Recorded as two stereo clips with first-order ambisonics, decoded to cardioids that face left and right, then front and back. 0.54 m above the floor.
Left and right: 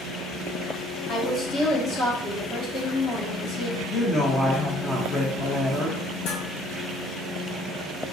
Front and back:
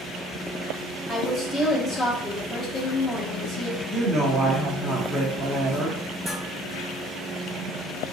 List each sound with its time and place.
1.1 s a woman speaking: 65° left, 1.0 m
3.9 s a woman speaking: 130° left, 0.8 m
6.3 s dishes clattering: 110° left, 2.5 m